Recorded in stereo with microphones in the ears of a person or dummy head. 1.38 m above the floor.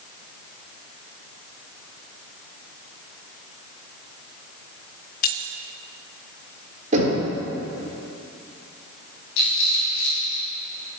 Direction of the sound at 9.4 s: 65° left (ahead or behind).